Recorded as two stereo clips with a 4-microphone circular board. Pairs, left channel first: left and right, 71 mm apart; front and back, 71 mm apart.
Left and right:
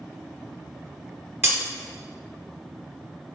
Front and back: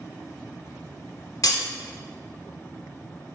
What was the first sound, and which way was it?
Breaking glass, 35° right.